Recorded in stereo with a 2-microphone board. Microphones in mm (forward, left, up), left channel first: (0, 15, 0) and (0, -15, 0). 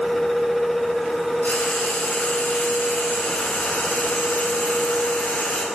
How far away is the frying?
About 9 m.